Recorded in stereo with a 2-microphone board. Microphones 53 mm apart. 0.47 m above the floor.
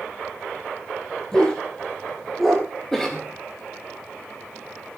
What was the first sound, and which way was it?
A dog barking, 10° left (ahead or behind).